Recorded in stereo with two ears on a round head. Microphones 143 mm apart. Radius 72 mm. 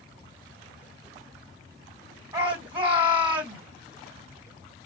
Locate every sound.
2.3 s a shout: 30° right (ahead or behind), 2 m